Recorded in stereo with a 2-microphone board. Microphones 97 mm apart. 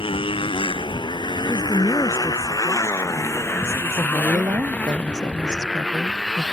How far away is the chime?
I don't hear a chime.